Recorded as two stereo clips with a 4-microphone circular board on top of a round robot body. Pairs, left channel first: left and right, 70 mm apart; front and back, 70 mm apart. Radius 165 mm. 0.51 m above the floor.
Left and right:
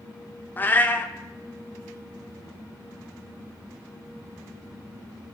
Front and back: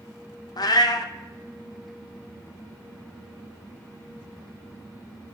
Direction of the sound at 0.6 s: 25° left.